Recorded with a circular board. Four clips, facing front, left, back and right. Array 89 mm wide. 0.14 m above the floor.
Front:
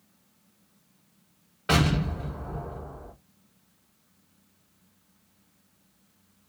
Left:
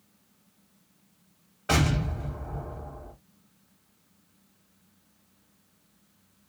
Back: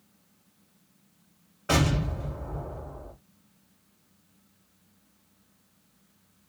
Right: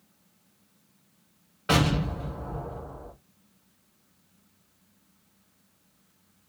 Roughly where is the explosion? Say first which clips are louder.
Right 2 dB, front 1 dB; ahead right.